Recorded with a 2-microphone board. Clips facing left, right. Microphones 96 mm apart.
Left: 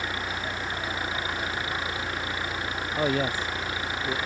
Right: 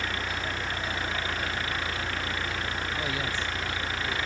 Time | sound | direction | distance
0.0 | an engine running | 20° left (ahead or behind) | ?
3.0 | a man speaking | 45° left (ahead or behind) | ?